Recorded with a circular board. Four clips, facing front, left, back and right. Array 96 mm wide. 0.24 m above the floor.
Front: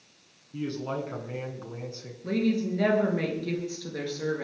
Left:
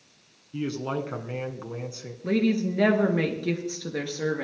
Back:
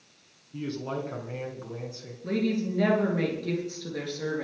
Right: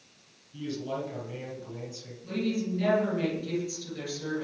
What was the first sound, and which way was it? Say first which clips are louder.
A man speaking: left 4 dB, front 1 dB; 85° left.